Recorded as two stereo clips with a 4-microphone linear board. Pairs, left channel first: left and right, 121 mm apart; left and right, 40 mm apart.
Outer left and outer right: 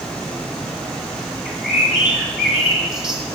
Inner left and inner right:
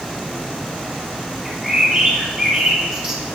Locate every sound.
1.4 s a bird: 5° right (ahead or behind), 1.5 m